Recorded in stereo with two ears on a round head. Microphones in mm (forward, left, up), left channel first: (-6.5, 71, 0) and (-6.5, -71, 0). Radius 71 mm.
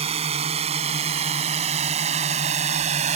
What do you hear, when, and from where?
0.0 s a drone: 40° right (ahead or behind); by 3.2 s 45° right (ahead or behind)